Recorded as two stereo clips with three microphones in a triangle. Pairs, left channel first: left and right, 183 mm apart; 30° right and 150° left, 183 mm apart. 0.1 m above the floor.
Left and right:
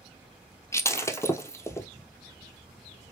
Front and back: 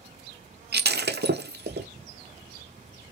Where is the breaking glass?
165° left, 0.6 m.